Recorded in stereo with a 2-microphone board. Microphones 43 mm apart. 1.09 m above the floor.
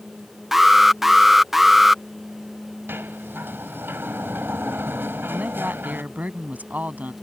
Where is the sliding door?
55° right (ahead or behind).